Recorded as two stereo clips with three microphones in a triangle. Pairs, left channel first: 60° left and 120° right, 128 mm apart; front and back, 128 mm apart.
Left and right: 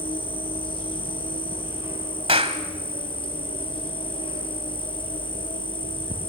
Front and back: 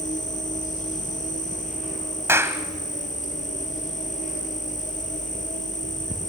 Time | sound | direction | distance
0.0 | an insect | 15° left | 4 m
2.3 | a clap | 115° right | 1.4 m